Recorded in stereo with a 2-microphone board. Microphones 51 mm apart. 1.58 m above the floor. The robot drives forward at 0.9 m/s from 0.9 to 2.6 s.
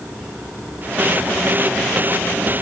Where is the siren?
No siren in this recording.